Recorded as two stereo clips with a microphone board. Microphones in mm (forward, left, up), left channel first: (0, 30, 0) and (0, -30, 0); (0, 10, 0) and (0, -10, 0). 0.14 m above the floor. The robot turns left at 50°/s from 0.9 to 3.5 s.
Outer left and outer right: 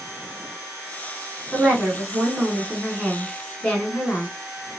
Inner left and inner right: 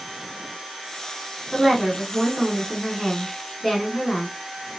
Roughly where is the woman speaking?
Centre.